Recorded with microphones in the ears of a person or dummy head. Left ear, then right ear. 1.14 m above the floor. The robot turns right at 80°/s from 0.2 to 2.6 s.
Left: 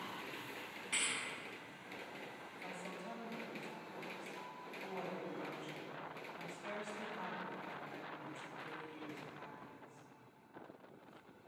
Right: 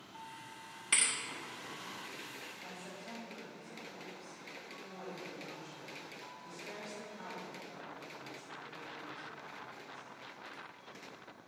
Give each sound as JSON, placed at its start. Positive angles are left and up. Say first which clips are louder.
{"t": 0.9, "sound": "a thud", "louder": "right 5 dB", "side_deg": -40, "distance_m": 0.9}
{"t": 2.6, "sound": "a woman speaking", "louder": "even", "side_deg": 80, "distance_m": 2.5}